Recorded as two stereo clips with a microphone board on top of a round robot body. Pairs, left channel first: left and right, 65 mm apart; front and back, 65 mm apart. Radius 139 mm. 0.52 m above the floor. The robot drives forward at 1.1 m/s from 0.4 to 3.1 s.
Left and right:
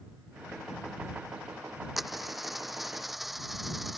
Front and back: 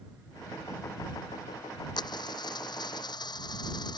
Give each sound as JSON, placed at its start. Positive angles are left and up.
{"t": 2.0, "sound": "a dropped coin", "azimuth_deg": -5}